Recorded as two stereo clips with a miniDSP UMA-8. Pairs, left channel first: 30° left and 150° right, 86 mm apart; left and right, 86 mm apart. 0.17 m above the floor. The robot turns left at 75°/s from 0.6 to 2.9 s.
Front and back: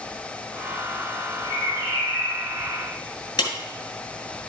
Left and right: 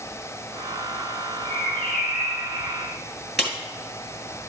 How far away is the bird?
About 4.5 m.